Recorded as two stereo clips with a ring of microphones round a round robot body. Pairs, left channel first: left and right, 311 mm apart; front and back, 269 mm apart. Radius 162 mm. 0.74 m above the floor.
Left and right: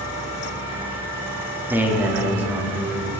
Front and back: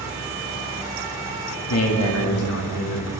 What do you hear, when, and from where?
1.7 s a man speaking: 5° right, 2 m